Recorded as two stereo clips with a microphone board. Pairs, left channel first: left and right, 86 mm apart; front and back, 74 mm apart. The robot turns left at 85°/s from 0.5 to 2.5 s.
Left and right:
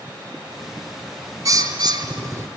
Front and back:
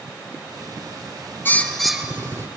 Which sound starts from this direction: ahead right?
A bird, at 1.4 s.